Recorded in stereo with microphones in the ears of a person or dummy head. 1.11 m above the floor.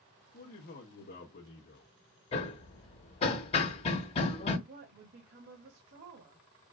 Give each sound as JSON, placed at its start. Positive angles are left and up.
{"t": 0.3, "sound": "a man speaking", "side_deg": 40, "distance_m": 1.5}
{"t": 2.3, "sound": "hammering", "side_deg": 30, "distance_m": 1.4}
{"t": 4.7, "sound": "a woman speaking", "side_deg": -50, "distance_m": 1.6}